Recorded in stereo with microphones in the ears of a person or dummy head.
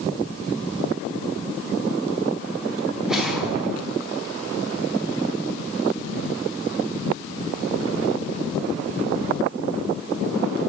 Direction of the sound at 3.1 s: Centre (ahead or behind).